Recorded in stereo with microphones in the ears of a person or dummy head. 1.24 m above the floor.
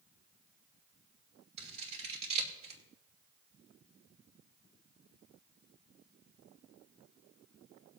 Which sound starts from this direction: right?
Scissors, at 1.6 s.